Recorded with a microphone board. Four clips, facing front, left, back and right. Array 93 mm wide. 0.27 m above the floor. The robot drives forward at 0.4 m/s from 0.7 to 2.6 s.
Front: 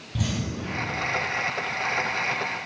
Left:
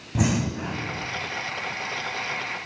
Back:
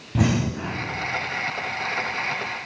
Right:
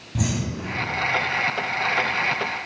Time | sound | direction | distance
0.1 | breathing | 150° left | 0.6 m